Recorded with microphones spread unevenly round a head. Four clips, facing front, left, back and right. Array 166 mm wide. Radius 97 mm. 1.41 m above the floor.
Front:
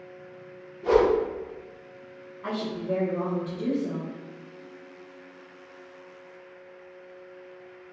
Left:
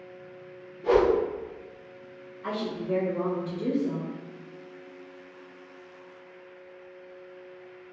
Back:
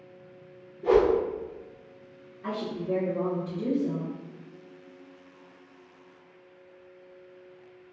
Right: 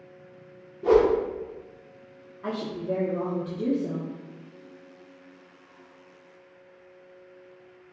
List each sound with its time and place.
0.8 s a whoosh: 110° right, 1.0 m
2.4 s a woman speaking: 95° right, 0.9 m